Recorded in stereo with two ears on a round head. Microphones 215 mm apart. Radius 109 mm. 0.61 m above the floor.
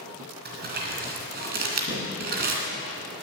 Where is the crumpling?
40° right (ahead or behind), 2.5 m.